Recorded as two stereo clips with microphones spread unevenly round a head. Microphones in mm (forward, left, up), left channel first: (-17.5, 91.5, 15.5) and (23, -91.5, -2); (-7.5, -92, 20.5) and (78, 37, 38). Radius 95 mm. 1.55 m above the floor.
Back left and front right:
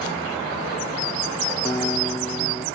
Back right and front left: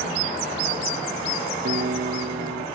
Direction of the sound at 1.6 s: 30° left.